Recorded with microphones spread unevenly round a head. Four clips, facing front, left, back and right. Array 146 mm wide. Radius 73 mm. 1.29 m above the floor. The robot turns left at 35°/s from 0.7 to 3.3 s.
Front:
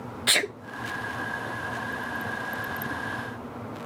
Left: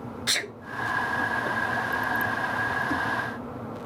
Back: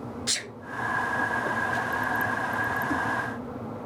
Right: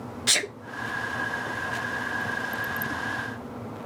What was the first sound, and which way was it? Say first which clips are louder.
A sneeze: right 3 dB, front 10 dB; 20° right.